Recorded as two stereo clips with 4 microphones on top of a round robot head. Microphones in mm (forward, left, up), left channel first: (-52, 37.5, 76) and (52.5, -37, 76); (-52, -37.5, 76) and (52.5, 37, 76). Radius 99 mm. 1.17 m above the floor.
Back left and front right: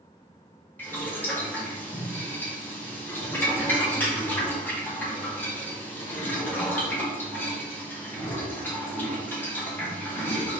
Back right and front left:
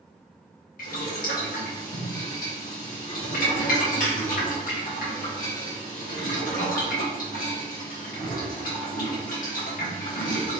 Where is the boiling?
140° right, 2.5 m.